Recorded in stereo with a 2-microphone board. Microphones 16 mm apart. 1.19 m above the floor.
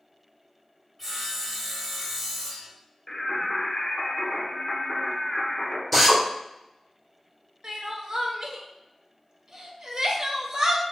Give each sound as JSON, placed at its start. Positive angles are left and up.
{"t": 1.0, "sound": "sawing", "side_deg": 5, "distance_m": 2.5}
{"t": 3.1, "sound": "singing", "side_deg": 40, "distance_m": 1.3}
{"t": 5.9, "sound": "a drill", "side_deg": 10, "distance_m": 1.4}
{"t": 7.6, "sound": "crying", "side_deg": -40, "distance_m": 0.8}